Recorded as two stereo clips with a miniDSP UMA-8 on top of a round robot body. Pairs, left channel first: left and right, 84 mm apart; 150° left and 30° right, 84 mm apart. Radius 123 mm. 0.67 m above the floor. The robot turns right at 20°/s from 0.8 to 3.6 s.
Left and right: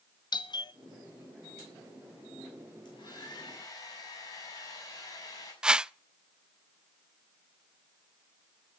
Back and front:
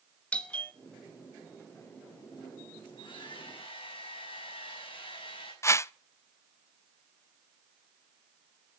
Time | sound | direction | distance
0.3 | a doorbell | 75° left | 1.6 m
2.9 | a hair dryer | 120° left | 6.5 m
5.6 | a whoosh | 165° right | 0.6 m